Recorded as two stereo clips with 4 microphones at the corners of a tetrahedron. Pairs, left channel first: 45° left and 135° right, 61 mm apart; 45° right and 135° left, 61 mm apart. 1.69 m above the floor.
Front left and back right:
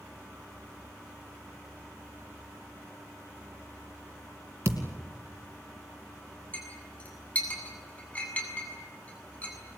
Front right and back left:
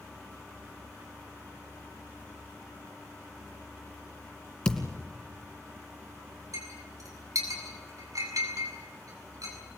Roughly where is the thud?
Behind right.